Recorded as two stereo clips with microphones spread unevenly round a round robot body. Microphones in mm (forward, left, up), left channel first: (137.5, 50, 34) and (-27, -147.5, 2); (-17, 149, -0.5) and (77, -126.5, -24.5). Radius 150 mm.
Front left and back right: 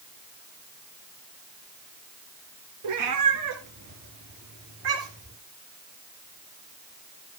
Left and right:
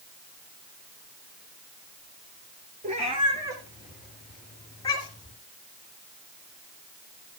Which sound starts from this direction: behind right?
A cat meowing, at 2.8 s.